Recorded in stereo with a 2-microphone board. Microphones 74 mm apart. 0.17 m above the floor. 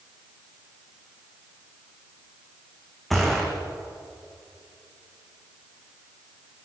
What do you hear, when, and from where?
3.1 s a gunshot: centre (ahead or behind), 4.5 m